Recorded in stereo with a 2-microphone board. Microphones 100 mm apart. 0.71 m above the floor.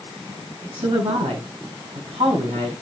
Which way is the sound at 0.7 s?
70° right (ahead or behind).